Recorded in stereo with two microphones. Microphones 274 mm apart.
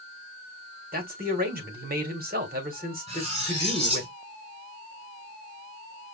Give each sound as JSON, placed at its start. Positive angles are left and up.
{"t": 0.9, "sound": "a man speaking", "side_deg": -35, "distance_m": 1.6}
{"t": 3.1, "sound": "cutlery clinking", "side_deg": -20, "distance_m": 3.0}